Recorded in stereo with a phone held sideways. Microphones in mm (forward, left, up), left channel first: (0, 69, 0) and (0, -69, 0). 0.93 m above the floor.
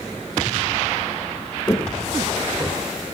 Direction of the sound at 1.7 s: 20° left (ahead or behind).